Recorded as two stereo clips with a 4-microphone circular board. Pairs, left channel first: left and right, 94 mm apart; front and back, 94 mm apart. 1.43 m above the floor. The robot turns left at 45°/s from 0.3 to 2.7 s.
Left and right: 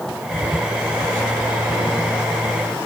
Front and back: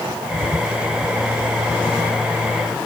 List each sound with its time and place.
Only background noise.